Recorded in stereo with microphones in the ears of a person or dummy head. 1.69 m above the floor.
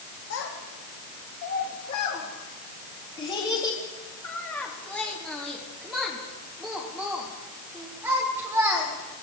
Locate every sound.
0.3 s a child speaking: 65° left (ahead or behind), 2 m; by 8.9 s 15° right (ahead or behind), 4 m